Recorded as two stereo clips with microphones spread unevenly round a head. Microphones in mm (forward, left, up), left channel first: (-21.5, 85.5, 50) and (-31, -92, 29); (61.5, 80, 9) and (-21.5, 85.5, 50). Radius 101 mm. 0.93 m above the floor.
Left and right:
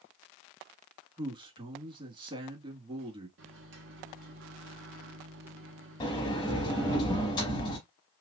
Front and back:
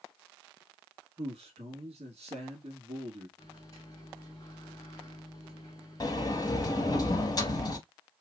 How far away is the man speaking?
About 1.6 m.